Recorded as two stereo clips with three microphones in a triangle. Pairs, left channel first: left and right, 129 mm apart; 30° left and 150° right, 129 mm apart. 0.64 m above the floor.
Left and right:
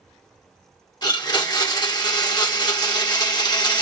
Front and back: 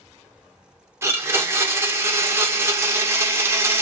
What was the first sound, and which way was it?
A blender, 145° left.